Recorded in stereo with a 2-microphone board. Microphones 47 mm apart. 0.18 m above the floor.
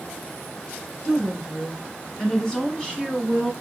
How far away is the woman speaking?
About 1.6 m.